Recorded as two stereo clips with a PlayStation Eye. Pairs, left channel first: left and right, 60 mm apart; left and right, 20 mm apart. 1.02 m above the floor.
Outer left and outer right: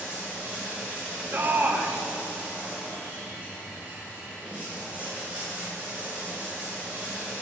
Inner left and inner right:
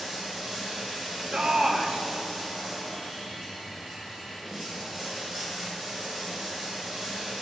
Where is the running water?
25° right (ahead or behind), 3 m.